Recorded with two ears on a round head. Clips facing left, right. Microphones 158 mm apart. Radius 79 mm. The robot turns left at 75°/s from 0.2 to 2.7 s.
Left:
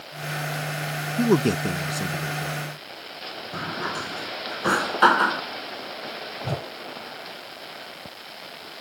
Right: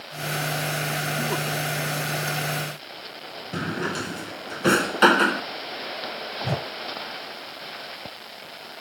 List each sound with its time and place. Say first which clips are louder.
1.2 s a man speaking: left 13 dB; 40° left (ahead or behind); by 2.6 s 35° left (ahead or behind)
3.5 s a drawer: right 4 dB; 25° right (ahead or behind)
6.4 s a whoosh: right 2 dB; 10° right (ahead or behind)